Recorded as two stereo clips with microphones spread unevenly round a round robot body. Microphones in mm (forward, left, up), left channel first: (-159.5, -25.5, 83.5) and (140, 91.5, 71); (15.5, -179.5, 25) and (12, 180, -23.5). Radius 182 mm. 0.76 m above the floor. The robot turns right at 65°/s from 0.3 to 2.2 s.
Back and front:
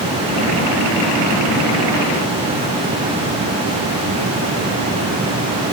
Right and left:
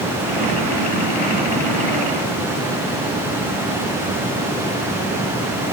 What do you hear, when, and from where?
Only background noise.